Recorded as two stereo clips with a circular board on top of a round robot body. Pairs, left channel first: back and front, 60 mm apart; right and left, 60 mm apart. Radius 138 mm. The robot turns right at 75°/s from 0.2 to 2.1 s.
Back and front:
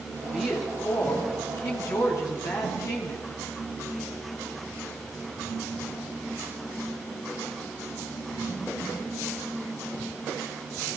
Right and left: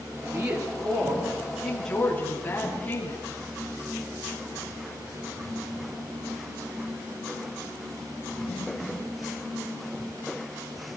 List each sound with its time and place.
0.2 s a woman speaking: 65° left, 7.5 m; by 3.2 s 155° right, 7.5 m